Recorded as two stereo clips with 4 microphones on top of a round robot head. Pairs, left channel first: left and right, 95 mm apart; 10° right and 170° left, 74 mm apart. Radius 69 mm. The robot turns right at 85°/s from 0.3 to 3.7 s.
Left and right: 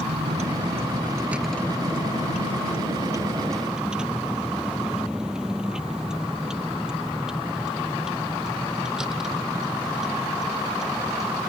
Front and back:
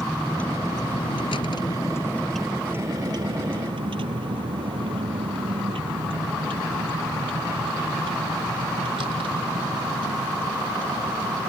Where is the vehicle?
95° right; by 11.5 s 175° right.